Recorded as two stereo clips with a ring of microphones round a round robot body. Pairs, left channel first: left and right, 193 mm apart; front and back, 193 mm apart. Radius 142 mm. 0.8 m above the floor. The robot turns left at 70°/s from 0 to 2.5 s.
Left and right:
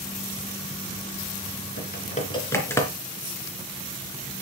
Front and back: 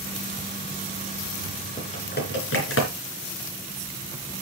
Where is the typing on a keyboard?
65° left, 3.5 m; by 2.9 s 15° left, 3.5 m.